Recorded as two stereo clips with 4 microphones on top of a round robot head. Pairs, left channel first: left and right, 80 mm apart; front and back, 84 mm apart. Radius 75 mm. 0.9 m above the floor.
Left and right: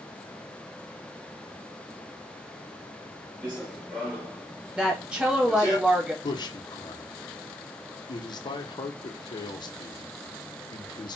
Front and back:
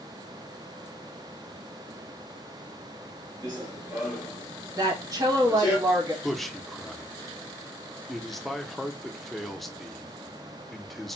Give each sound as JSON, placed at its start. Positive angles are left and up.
{"t": 3.4, "sound": "running footsteps", "azimuth_deg": -175, "distance_m": 1.0}
{"t": 4.8, "sound": "a woman speaking", "azimuth_deg": -165, "distance_m": 1.2}
{"t": 6.2, "sound": "a man speaking", "azimuth_deg": 90, "distance_m": 0.5}